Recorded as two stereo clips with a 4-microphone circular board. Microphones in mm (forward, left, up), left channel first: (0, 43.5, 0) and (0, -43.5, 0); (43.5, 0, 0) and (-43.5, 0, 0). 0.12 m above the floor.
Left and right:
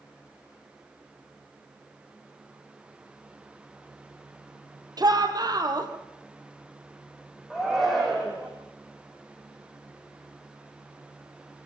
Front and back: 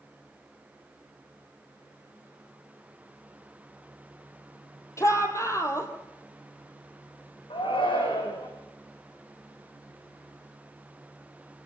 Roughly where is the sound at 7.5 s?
Ahead.